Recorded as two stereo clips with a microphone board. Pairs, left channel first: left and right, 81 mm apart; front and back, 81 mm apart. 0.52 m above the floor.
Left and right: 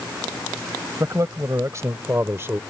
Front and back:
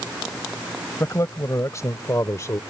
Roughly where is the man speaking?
Ahead right.